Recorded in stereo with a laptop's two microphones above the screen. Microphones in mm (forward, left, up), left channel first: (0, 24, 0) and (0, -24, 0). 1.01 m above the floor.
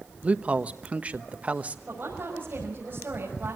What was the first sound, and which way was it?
A man speaking, 30° right (ahead or behind).